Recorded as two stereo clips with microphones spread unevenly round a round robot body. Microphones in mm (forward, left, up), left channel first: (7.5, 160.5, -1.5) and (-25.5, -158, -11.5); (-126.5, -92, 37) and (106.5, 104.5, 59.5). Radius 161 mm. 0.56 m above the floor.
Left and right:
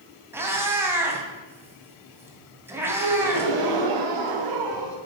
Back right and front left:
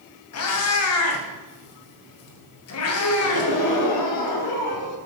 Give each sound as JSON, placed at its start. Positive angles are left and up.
{"t": 0.3, "sound": "a cat meowing", "azimuth_deg": 180, "distance_m": 2.5}
{"t": 3.0, "sound": "a gasp", "azimuth_deg": -115, "distance_m": 2.0}